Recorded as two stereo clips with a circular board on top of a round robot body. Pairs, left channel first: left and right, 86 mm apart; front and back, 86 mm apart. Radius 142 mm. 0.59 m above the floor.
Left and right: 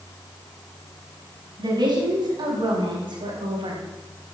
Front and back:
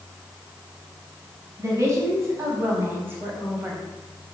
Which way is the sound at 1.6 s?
125° right.